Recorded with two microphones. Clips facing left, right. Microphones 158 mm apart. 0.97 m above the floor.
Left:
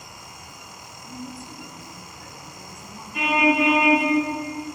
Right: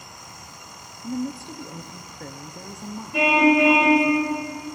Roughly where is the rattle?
I don't hear a rattle.